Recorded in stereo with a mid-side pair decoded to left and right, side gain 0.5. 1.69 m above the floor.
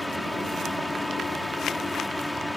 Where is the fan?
5° left.